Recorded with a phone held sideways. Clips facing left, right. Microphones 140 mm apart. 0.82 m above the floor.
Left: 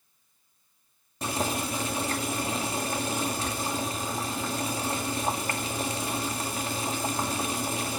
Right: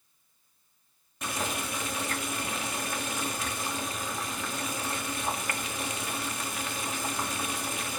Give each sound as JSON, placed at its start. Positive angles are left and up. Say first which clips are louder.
{"t": 1.2, "sound": "boiling", "louder": "left 4 dB", "side_deg": 35, "distance_m": 2.0}